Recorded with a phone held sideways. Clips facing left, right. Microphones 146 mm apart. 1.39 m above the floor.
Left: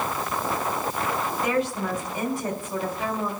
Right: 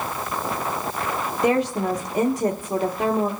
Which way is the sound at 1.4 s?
40° right (ahead or behind).